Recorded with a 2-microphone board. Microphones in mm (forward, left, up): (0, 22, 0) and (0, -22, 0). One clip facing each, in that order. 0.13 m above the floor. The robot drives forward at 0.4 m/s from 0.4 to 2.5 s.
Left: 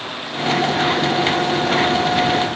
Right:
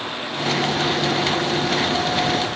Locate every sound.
Only background noise.